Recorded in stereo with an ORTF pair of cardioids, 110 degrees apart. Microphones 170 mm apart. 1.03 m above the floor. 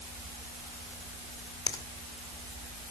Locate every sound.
1.7 s a finger snap: 20° left, 2.5 m